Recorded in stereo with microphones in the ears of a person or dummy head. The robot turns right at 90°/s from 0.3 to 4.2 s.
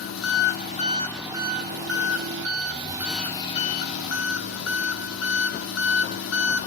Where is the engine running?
105° left, 2.5 m; by 6.7 s 95° left, 2.5 m.